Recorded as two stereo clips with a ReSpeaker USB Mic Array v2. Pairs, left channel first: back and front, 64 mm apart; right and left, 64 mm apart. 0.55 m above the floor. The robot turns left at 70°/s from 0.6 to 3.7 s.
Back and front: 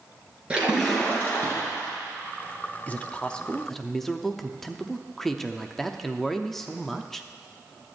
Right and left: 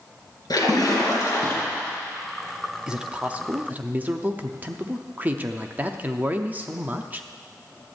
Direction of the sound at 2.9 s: 160° left.